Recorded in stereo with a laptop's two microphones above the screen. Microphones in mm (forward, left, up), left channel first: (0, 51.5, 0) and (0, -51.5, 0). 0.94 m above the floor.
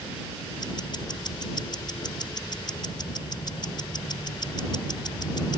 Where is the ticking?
45° left (ahead or behind).